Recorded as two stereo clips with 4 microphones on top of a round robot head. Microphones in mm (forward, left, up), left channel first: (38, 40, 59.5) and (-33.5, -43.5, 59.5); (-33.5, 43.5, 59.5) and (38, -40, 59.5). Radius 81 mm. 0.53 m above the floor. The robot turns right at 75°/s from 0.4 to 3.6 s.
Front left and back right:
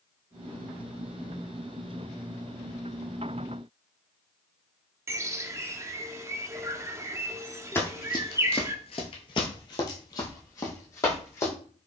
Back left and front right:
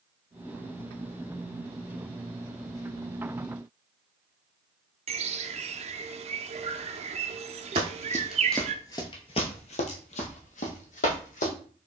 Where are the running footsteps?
15° right, 0.6 m; by 11.5 s 115° left, 1.7 m.